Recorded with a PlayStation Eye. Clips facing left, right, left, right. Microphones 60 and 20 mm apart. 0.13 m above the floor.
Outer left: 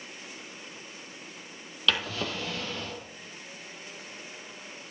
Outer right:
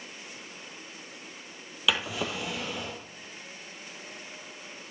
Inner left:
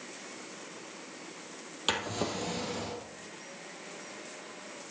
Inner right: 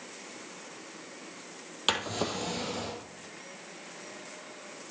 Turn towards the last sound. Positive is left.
turn(degrees=-10)  # may be behind; listen again after turning